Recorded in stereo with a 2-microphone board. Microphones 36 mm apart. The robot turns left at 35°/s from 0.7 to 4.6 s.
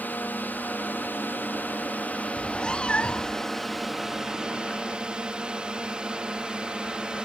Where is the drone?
110° left; by 7.2 s 30° right.